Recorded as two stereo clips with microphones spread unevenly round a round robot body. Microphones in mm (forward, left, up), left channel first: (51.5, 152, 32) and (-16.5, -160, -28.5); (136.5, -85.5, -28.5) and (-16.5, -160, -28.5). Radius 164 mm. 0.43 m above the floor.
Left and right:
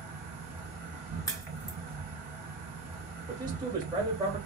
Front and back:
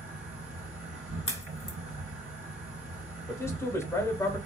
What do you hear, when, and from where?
0.0 s an insect: straight behind, 1.4 m
1.3 s a crack: 10° right, 0.7 m
3.3 s a man speaking: 40° right, 1.1 m